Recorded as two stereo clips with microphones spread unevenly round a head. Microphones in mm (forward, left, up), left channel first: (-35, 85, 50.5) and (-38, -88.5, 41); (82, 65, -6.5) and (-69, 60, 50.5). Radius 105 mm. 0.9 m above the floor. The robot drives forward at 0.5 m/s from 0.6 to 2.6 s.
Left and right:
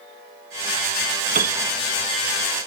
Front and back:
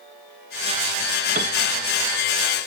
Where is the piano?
130° right.